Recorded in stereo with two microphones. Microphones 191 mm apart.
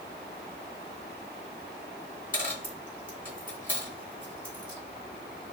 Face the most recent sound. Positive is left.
turn(degrees=45)  # may be behind; listen again after turning